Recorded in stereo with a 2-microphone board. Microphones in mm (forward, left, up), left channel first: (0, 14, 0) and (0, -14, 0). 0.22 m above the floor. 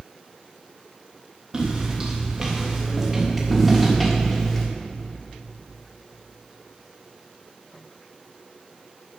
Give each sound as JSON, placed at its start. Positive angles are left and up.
{"t": 1.5, "sound": "footsteps", "side_deg": -25, "distance_m": 3.5}